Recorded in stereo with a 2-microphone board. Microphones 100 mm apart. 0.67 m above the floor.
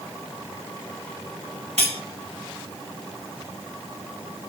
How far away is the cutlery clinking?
About 2 m.